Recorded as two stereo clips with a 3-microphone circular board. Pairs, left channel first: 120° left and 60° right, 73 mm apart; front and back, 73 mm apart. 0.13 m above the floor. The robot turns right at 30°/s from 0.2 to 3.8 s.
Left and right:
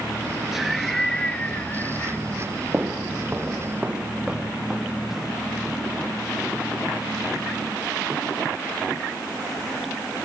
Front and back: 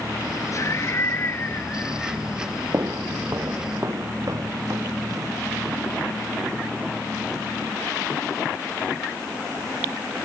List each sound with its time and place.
0.5 s laughter: 25° left, 2.5 m; by 2.2 s 75° left, 2.5 m
2.7 s footsteps: 125° right, 1.0 m; by 5.3 s 145° right, 3 m